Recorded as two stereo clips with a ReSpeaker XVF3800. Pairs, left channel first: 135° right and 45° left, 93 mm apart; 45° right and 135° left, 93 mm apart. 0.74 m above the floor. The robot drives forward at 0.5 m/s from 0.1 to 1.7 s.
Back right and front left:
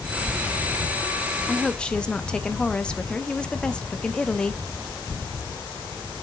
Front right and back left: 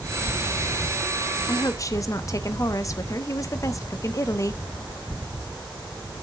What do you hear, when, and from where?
1.5 s a woman speaking: 50° right, 0.7 m; by 4.6 s 65° right, 0.6 m